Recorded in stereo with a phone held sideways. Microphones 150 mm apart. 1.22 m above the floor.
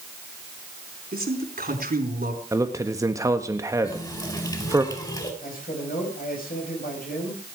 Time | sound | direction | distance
1.1 | a man speaking | 85° right | 4 m
2.5 | a man speaking | 20° right (ahead or behind) | 1.4 m
3.8 | a running tap | 25° left (ahead or behind) | 4 m
5.4 | a man speaking | 75° left (ahead or behind) | 6.5 m